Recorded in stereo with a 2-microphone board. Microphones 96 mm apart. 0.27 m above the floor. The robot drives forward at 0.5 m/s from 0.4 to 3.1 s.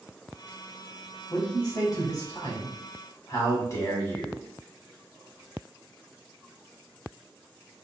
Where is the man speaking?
45° left (ahead or behind), 1.3 m; by 4.5 s 35° left (ahead or behind), 1.6 m.